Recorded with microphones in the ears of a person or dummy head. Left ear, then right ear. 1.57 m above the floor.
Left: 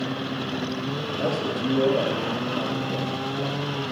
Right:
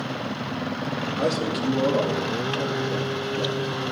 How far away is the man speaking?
About 3.5 m.